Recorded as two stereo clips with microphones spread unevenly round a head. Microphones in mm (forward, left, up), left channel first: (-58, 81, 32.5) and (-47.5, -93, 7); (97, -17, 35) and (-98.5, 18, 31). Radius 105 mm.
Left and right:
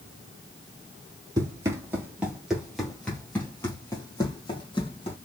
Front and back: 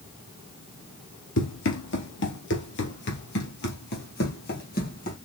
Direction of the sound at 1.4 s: 10° right.